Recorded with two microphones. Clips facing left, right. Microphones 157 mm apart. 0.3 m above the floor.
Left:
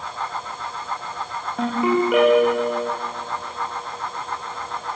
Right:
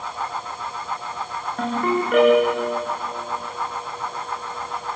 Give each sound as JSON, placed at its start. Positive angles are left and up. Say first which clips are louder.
{"t": 1.6, "sound": "a ringtone", "louder": "left 3 dB", "side_deg": 5, "distance_m": 8.5}